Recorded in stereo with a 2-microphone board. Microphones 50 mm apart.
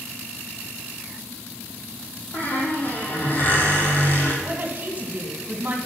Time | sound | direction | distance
2.3 | a squeak | 40° left (ahead or behind) | 2.5 m
4.4 | a woman speaking | 35° right (ahead or behind) | 1.9 m